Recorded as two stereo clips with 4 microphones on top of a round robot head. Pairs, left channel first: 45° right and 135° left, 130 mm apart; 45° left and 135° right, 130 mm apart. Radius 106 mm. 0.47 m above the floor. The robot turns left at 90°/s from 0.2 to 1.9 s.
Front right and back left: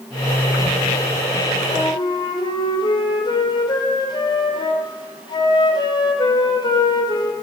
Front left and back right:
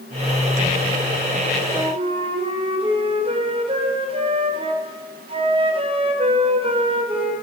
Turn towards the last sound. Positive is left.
turn(degrees=-95)